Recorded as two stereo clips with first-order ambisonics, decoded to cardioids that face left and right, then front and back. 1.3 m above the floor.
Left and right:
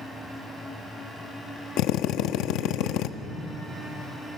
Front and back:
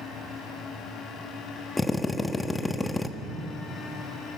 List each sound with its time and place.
1.8 s a drill: 75° left, 1.0 m